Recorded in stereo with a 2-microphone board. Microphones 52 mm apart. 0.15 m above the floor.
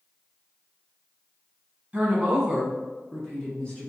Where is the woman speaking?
25° right (ahead or behind), 1.6 m; by 3.9 s 25° left (ahead or behind), 2.0 m.